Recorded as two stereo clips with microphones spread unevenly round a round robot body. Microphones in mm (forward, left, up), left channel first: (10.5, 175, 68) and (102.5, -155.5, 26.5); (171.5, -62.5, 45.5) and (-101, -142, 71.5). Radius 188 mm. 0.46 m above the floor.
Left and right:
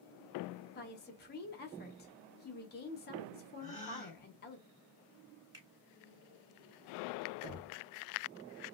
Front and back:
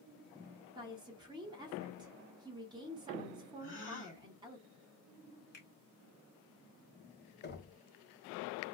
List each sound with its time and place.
0.8 s a woman speaking: 130° left, 0.7 m
3.6 s a gasp: straight ahead, 1.5 m
5.5 s a finger snap: 5° right, 1.6 m
7.4 s knocking: 35° right, 1.1 m